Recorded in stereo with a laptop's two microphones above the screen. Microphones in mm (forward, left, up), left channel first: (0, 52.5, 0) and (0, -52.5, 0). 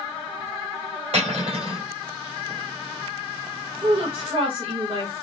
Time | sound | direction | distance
1.1 | cutlery clinking | 70° right (ahead or behind) | 2 m
3.8 | a woman speaking | 55° right (ahead or behind) | 1.4 m